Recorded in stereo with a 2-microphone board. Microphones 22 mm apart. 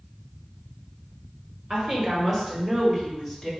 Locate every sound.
1.7 s a woman speaking: 30° right (ahead or behind), 1.7 m; by 3.5 s centre (ahead or behind), 1.2 m